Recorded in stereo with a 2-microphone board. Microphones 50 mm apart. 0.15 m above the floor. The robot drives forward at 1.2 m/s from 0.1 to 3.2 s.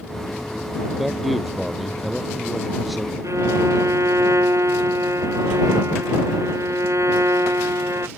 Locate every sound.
1.0 s a man speaking: centre (ahead or behind)
3.2 s a violin: 80° right